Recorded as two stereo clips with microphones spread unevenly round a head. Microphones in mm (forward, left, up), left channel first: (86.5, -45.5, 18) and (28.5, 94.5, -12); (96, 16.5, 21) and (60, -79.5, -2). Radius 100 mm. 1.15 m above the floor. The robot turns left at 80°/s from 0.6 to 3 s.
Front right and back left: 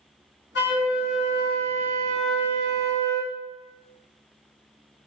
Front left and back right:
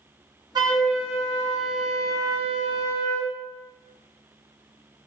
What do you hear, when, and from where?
0.6 s a flute: 60° right, 1.1 m; by 3.3 s 105° left, 1.1 m